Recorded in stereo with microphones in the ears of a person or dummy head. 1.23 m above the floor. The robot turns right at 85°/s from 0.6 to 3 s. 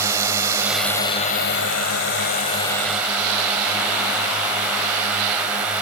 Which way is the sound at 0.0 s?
15° right.